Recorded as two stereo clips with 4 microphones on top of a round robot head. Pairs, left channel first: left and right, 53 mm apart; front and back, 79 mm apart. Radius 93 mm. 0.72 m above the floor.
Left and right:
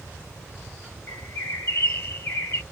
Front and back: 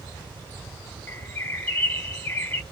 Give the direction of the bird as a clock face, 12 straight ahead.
10 o'clock.